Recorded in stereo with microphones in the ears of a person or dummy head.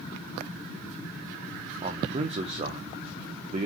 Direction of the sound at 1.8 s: 35° right (ahead or behind).